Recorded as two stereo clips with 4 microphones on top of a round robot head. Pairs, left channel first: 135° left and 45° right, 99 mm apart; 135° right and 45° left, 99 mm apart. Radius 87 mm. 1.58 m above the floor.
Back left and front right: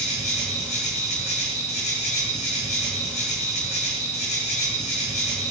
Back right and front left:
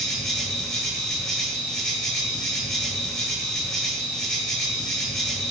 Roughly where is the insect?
Behind left.